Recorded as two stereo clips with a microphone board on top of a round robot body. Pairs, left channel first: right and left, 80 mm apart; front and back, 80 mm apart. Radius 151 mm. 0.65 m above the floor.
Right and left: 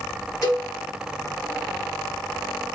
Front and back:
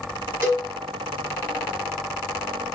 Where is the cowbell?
125° right, 1.4 m.